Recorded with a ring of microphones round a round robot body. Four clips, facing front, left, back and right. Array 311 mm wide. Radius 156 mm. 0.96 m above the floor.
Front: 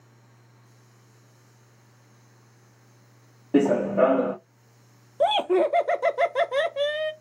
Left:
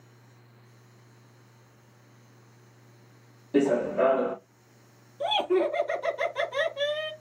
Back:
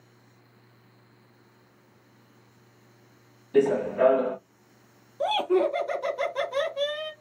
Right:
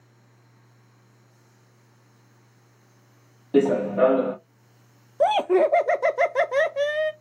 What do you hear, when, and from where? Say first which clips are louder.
3.5 s running footsteps: right 4 dB, front 2 dB; 30° right, 1.5 m
5.2 s laughter: right 6 dB, front 3 dB; 65° right, 0.5 m